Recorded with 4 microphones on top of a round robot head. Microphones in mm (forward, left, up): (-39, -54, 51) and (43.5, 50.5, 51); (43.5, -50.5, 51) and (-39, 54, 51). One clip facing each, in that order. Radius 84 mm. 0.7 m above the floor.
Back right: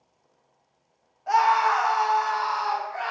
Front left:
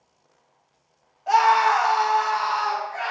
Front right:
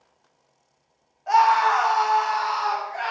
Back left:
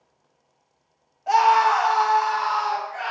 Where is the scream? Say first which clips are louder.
Front left 3 dB, back left 1 dB; 90° left, 0.8 m; by 3.1 s 10° right, 1.3 m.